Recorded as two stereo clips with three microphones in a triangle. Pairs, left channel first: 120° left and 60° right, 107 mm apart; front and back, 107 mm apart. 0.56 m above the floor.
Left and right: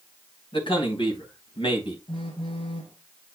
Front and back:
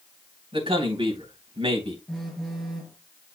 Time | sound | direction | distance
0.5 | a man speaking | 155° left | 3.5 m
2.1 | a phone buzzing | 85° left | 3.5 m